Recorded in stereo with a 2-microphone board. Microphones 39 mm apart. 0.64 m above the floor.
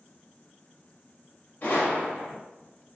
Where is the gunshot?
55° left (ahead or behind), 1.7 m.